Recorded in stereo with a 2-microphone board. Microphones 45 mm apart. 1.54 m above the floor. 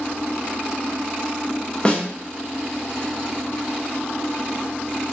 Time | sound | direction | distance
1.9 | a snare drum | 25° left (ahead or behind) | 0.5 m